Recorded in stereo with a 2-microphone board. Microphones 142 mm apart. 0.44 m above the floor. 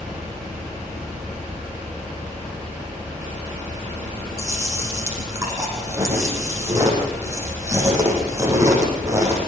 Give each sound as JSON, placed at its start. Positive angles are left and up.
{"t": 4.4, "sound": "chewing", "side_deg": -20, "distance_m": 8.0}